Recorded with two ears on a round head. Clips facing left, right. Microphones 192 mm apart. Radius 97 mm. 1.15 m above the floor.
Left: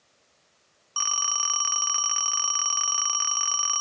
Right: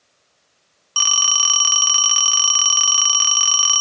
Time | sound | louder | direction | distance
1.0 | a phone ringing | right 5 dB | 45° right (ahead or behind) | ?